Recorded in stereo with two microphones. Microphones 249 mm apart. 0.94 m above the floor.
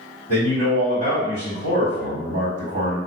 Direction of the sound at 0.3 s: 70° right (ahead or behind).